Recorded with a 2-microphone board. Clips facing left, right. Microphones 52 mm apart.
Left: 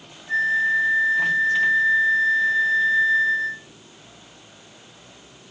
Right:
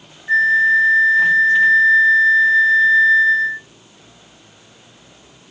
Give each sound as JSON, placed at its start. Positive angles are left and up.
{"t": 0.3, "sound": "a flute", "side_deg": -90, "distance_m": 0.6}